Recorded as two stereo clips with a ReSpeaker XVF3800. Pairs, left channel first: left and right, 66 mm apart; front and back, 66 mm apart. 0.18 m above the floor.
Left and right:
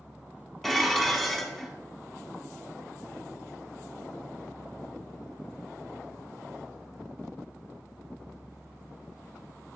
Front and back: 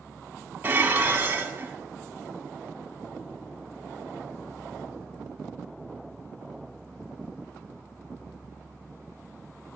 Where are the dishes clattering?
175° left, 1.0 m.